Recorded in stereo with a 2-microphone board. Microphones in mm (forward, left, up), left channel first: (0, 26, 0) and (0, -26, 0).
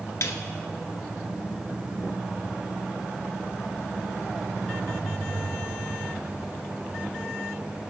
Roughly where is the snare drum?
Left.